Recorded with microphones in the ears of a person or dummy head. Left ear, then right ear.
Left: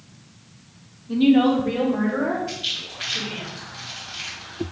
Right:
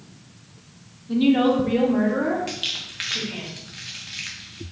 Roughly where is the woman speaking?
Centre.